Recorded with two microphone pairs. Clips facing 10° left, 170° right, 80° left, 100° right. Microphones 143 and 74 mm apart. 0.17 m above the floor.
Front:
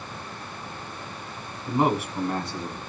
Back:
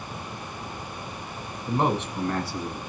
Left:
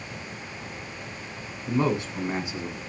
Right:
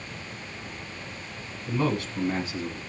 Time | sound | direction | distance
1.7 | a man speaking | 105° left | 1.3 m